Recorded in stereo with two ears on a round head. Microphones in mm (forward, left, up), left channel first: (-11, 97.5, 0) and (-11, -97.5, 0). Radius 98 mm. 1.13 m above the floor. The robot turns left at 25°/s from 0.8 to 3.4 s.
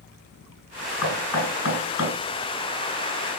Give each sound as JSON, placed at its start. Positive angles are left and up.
{"t": 1.0, "sound": "knocking", "side_deg": 85, "distance_m": 7.5}